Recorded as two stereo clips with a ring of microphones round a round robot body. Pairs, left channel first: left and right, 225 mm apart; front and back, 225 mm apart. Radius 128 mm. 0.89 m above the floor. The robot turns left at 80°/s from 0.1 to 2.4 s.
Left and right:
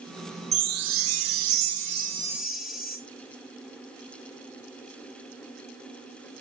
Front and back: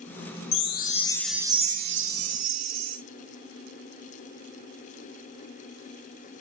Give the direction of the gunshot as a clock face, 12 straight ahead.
No gunshot in this recording.